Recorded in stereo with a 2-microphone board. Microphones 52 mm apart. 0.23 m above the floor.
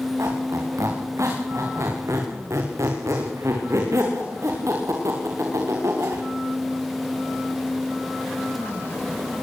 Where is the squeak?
70° right (ahead or behind), 8 m.